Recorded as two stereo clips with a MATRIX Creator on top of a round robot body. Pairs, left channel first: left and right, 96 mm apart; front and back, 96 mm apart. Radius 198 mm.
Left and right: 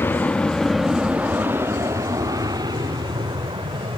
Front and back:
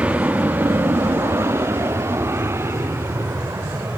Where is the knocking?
I don't hear knocking.